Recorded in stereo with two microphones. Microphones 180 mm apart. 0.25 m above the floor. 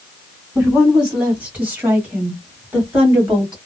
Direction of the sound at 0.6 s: 5° right (ahead or behind).